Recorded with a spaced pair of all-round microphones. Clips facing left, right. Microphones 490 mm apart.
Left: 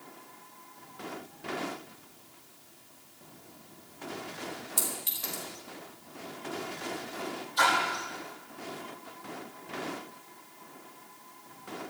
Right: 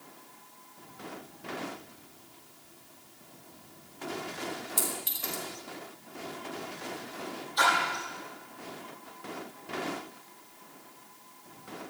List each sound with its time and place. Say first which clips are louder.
4.8 s a clink: right 3 dB; 10° left (ahead or behind), 4.5 m
7.6 s a splash: even; 50° left (ahead or behind), 8.5 m